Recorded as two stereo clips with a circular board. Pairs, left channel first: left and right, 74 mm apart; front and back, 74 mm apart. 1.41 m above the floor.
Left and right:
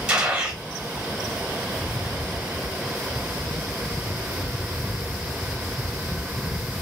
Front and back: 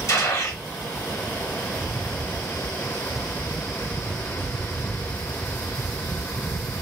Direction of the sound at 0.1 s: 20° right.